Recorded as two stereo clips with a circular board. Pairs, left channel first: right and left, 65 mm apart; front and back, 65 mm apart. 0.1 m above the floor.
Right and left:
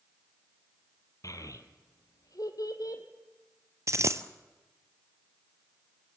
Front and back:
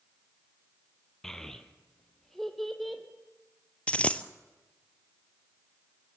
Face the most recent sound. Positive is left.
turn(degrees=65)